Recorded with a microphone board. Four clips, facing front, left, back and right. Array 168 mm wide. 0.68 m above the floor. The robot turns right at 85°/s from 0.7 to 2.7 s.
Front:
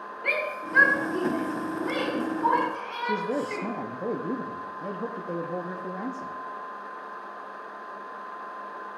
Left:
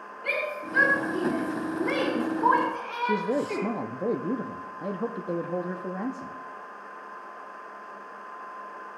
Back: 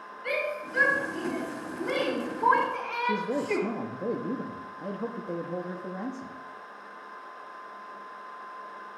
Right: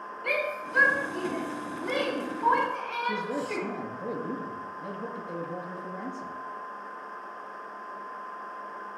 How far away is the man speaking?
About 0.6 m.